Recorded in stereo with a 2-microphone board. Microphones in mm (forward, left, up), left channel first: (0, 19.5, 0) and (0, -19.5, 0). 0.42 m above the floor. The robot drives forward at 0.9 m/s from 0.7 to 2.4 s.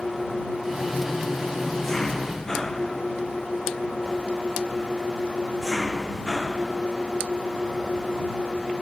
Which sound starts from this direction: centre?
An engine running, at 0.0 s.